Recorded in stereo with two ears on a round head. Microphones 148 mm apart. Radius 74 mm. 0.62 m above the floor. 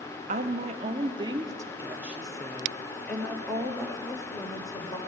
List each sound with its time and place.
0.3 s a woman speaking: 50° right (ahead or behind), 1.1 m; by 5.0 s 25° left (ahead or behind), 2 m